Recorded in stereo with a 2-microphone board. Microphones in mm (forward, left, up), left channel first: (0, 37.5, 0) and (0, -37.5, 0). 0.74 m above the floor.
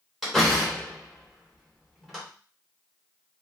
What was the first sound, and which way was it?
A door slam, centre (ahead or behind).